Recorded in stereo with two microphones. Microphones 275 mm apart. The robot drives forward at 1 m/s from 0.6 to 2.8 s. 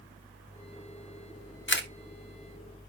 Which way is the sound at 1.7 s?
45° left (ahead or behind).